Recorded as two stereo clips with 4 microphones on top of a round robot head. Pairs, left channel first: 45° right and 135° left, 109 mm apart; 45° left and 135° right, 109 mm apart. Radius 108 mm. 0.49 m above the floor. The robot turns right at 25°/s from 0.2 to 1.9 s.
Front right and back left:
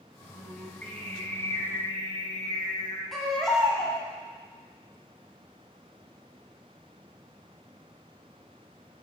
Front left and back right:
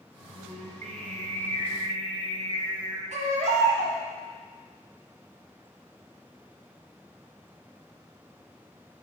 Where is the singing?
135° right, 1.3 m; by 3.0 s 95° right, 1.3 m.